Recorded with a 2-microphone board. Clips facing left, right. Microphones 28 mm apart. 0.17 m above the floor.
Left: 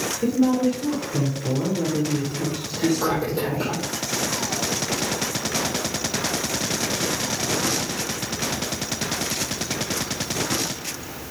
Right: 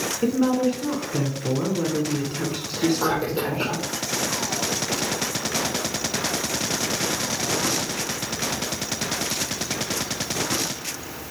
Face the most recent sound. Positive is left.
turn(degrees=-25)  # may be behind; listen again after turning